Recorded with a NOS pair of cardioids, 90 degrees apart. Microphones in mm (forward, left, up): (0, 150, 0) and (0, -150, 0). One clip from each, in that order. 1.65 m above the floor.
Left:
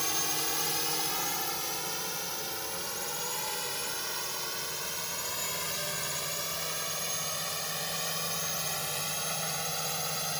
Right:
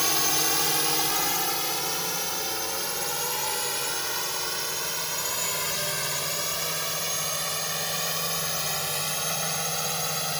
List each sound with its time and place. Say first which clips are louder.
0.0 s a drone: right 7 dB; 50° right; by 10.4 s 40° right